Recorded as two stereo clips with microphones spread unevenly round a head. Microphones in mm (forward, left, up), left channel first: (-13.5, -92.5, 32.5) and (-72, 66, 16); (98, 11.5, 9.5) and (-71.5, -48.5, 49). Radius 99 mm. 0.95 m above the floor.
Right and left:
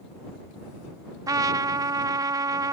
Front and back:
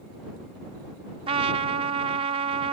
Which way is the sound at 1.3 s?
175° left.